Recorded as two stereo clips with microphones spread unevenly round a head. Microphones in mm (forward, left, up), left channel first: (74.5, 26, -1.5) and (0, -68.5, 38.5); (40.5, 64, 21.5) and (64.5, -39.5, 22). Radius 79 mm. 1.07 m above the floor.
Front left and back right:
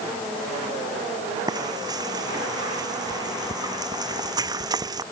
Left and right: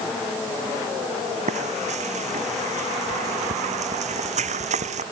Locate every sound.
1.5 s frying: 70° right